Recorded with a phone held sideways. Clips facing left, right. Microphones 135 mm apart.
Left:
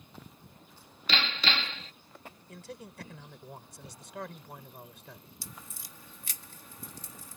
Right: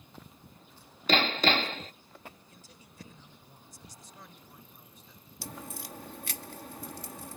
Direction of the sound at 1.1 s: 45° right (ahead or behind).